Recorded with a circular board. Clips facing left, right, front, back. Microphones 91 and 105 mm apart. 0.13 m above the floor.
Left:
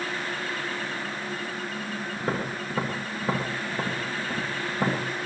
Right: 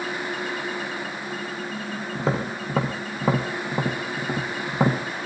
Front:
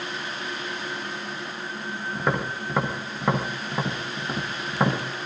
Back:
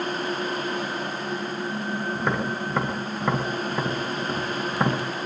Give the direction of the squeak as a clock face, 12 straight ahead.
No squeak in this recording.